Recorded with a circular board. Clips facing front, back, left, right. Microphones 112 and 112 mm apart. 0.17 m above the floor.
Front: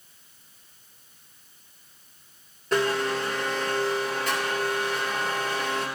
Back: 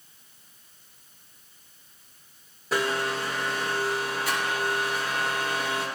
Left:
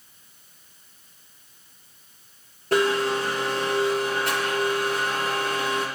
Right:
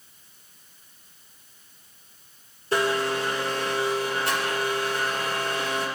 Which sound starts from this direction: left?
A blender, at 2.7 s.